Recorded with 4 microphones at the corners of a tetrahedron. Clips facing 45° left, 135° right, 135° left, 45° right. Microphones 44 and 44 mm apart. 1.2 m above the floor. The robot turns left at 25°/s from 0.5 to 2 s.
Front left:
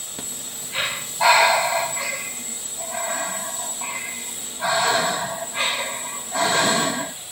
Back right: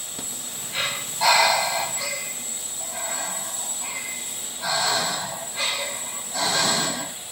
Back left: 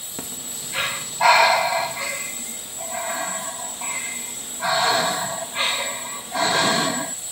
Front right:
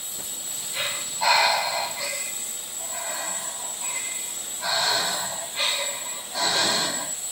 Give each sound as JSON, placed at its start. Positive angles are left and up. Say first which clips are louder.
{"t": 0.2, "sound": "breathing", "louder": "front left 1 dB, back left 6 dB", "azimuth_deg": 120, "distance_m": 1.9}